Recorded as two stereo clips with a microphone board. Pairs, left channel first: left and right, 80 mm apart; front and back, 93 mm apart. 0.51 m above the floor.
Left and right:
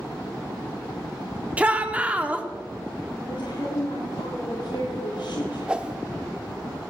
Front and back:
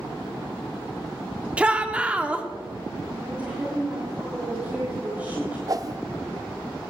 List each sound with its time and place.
1.6 s a shout: 125° right, 1.3 m
3.3 s a woman speaking: 105° left, 7.5 m
5.7 s a whoosh: 160° right, 0.6 m